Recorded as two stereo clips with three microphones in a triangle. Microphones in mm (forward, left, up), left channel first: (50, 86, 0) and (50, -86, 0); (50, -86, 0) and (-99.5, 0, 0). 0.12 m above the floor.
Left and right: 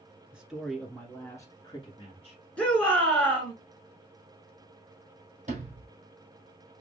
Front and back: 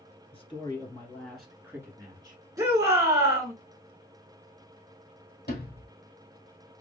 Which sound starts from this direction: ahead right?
A sliding door, at 5.5 s.